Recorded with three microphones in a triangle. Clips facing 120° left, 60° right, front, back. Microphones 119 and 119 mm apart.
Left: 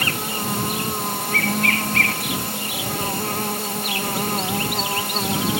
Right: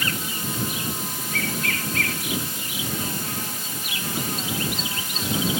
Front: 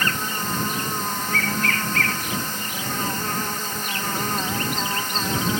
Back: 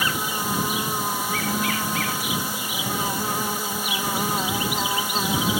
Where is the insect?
100° left.